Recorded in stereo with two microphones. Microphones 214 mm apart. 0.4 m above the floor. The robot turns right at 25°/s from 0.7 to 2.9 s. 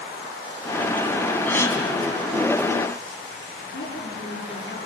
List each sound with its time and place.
1.5 s a gasp: 10° left (ahead or behind), 3 m; by 1.8 s 15° left (ahead or behind), 3 m
3.6 s a woman speaking: 60° left (ahead or behind), 9 m